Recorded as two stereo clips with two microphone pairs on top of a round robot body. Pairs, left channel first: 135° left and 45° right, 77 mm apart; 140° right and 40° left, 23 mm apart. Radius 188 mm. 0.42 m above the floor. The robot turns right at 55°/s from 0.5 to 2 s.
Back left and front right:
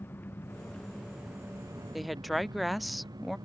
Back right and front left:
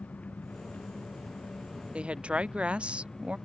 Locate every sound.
0.0 s an engine running: 160° right; by 3.5 s 75° right
1.9 s a woman speaking: 40° left; by 3.4 s 45° left